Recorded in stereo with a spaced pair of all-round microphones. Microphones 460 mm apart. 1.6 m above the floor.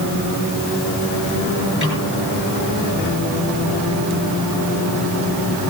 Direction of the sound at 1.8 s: 25° right (ahead or behind).